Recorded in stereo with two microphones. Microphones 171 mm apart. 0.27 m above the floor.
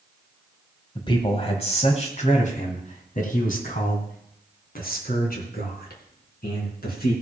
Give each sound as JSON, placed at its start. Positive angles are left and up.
{"t": 0.9, "sound": "a man speaking", "side_deg": 30, "distance_m": 1.7}